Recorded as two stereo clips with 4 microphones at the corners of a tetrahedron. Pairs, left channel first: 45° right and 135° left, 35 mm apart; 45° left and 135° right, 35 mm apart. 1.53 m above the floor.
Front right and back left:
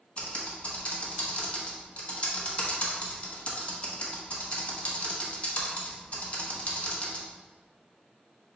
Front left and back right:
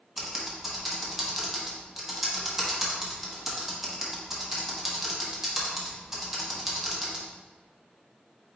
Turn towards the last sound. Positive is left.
turn(degrees=-60)